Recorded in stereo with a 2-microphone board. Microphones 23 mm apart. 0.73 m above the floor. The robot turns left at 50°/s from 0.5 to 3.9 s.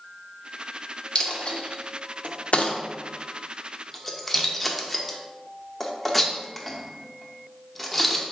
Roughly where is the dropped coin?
Left.